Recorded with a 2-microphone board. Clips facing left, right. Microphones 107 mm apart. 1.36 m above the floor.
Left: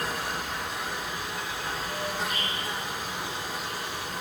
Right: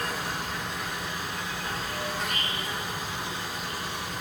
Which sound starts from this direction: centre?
An insect, at 0.0 s.